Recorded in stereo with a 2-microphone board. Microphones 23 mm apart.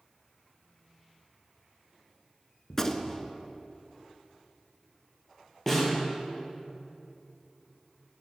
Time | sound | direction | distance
2.7 | a gunshot | 20° left (ahead or behind) | 0.6 m
5.7 | a snare drum | 15° left (ahead or behind) | 3 m